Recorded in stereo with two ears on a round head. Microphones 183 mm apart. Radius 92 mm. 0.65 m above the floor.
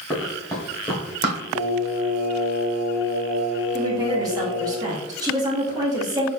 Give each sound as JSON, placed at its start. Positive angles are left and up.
{"t": 0.1, "sound": "running footsteps", "side_deg": 10, "distance_m": 1.4}
{"t": 1.6, "sound": "singing", "side_deg": 35, "distance_m": 0.9}
{"t": 3.7, "sound": "a woman speaking", "side_deg": -20, "distance_m": 1.0}